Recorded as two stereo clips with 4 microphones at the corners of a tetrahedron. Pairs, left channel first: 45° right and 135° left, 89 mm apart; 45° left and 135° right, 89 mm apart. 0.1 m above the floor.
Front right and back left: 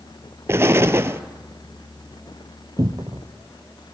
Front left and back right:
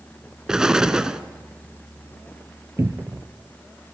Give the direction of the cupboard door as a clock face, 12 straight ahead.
6 o'clock.